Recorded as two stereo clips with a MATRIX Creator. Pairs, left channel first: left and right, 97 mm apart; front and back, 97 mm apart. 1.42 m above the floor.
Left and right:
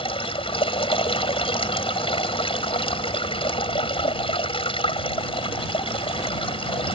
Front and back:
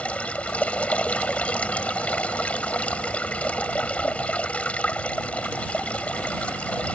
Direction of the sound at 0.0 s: 75° left.